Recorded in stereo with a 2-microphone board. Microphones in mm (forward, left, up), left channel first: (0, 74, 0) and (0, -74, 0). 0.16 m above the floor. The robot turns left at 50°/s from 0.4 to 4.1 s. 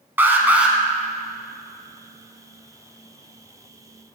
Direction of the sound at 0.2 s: 15° right (ahead or behind).